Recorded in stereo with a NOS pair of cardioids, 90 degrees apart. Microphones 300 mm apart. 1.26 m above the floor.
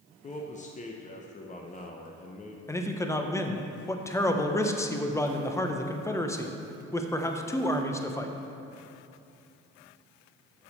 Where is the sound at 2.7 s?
10° left, 0.8 m.